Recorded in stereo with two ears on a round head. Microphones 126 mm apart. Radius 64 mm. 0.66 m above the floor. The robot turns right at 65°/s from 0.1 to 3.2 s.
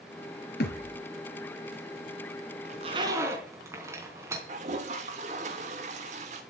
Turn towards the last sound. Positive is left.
turn(degrees=-55)  # may be behind; listen again after turning